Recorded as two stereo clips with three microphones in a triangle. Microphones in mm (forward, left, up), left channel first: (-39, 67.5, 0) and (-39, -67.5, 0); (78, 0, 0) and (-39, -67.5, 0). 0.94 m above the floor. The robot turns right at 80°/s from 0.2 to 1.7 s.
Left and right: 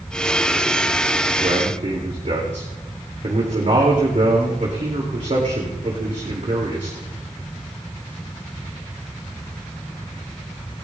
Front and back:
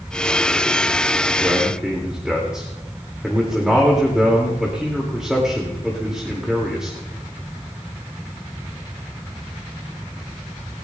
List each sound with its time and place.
1.4 s a man speaking: 90° right, 2.5 m; by 7.0 s 65° right, 2.5 m